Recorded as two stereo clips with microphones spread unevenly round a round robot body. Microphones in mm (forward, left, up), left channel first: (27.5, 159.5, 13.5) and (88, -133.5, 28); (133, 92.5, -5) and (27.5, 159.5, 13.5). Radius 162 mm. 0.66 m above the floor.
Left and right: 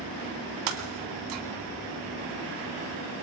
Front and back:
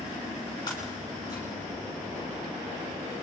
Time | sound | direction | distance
0.7 | breaking glass | 110° right | 1.7 m